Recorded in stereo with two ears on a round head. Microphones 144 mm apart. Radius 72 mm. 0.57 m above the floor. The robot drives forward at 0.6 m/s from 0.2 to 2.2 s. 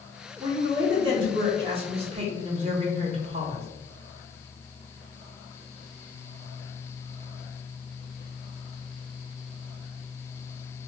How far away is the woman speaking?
About 1.3 m.